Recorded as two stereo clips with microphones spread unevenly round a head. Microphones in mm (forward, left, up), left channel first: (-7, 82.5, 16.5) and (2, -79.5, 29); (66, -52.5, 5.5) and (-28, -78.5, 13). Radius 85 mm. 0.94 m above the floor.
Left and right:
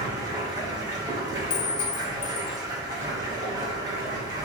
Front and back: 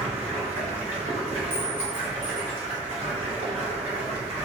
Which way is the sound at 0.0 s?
155° right.